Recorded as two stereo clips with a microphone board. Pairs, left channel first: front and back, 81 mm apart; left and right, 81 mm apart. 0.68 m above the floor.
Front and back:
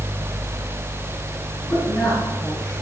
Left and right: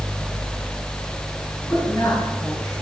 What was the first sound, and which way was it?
A woman speaking, 15° left.